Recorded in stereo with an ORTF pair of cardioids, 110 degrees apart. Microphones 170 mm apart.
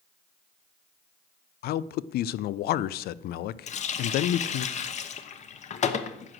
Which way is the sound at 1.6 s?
65° left.